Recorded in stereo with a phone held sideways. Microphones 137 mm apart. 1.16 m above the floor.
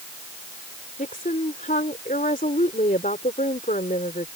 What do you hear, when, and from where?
1.0 s a woman speaking: 85° left